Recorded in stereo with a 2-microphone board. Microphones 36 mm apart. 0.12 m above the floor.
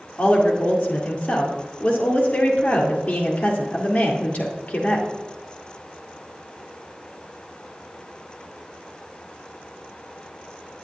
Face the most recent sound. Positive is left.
turn(degrees=40)  # may be behind; listen again after turning